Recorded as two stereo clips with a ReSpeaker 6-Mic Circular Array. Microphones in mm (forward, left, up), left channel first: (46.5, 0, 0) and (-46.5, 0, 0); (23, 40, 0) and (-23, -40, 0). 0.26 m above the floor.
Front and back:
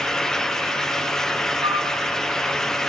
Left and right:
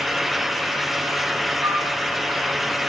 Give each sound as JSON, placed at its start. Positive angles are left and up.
{"t": 1.6, "sound": "a flute", "azimuth_deg": -170, "distance_m": 2.5}